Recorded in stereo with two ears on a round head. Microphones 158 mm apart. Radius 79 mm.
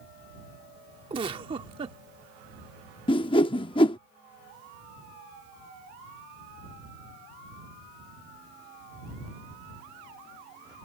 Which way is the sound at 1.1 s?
30° right (ahead or behind).